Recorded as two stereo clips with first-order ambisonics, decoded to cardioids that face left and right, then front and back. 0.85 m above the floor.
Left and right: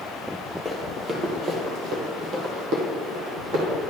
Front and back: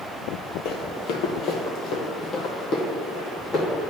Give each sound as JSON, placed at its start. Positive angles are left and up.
{"t": 0.7, "sound": "running footsteps", "azimuth_deg": -5, "distance_m": 1.2}